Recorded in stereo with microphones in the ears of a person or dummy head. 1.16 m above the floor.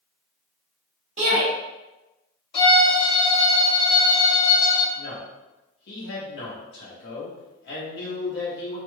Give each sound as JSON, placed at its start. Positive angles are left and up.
{"t": 1.2, "sound": "a shout", "side_deg": -40, "distance_m": 1.0}
{"t": 2.5, "sound": "a violin", "side_deg": 30, "distance_m": 1.8}
{"t": 5.0, "sound": "a man speaking", "side_deg": 65, "distance_m": 1.0}